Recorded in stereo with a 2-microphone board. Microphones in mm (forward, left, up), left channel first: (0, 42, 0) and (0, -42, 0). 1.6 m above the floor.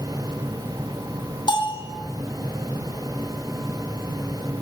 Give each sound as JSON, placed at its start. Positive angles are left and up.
{"t": 1.5, "sound": "a bell", "side_deg": 70, "distance_m": 4.5}